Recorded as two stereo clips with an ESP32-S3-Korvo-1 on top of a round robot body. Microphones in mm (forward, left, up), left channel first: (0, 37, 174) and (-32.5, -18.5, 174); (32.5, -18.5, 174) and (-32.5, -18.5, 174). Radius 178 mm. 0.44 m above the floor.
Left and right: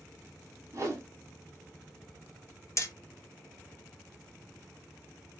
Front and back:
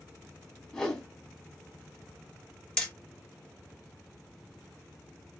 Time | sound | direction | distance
0.7 | a whoosh | 75° right | 1.7 m
2.8 | hammering | 80° left | 1.5 m